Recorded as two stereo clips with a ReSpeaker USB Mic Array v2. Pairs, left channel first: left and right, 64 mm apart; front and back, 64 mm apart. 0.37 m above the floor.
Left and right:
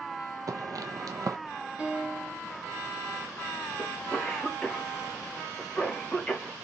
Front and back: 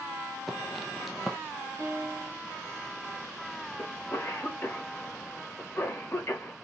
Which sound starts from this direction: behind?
A piano, at 1.8 s.